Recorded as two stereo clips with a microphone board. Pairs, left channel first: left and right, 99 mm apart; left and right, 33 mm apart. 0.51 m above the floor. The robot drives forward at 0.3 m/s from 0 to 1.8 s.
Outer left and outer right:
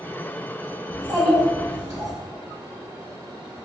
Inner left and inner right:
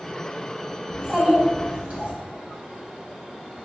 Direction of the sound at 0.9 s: 40° right (ahead or behind).